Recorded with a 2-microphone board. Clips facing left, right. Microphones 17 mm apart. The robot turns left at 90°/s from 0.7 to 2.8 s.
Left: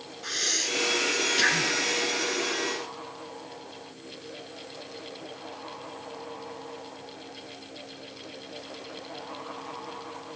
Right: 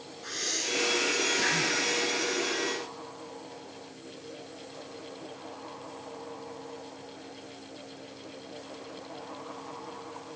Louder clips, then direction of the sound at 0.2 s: Left 4 dB; 35° left (ahead or behind).